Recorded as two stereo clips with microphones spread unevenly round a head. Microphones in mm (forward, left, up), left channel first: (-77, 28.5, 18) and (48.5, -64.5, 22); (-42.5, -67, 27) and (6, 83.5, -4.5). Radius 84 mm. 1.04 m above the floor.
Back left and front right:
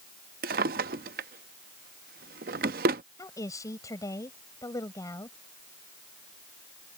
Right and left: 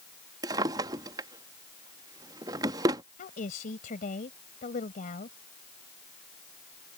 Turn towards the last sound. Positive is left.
turn(degrees=-145)